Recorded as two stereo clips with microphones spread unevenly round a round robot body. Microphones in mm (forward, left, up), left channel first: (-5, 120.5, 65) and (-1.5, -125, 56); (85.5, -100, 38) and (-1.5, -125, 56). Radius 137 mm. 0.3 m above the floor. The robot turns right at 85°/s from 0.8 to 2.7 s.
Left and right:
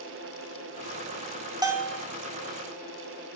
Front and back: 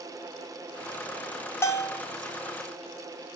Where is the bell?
25° right, 1.6 m; by 2.0 s 10° left, 1.6 m.